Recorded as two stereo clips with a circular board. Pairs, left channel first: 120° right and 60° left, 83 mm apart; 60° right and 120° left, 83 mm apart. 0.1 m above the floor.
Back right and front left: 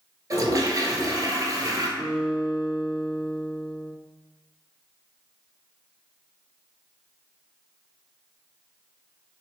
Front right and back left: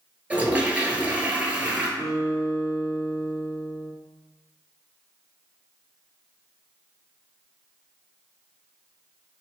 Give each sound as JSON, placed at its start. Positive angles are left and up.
{"t": 0.3, "sound": "a toilet flushing", "azimuth_deg": 55, "distance_m": 0.8}
{"t": 2.0, "sound": "a guitar", "azimuth_deg": -15, "distance_m": 1.0}